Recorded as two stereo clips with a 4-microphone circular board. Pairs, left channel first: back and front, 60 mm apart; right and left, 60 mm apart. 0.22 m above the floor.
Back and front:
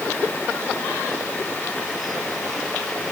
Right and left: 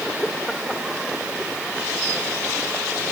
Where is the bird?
I don't hear a bird.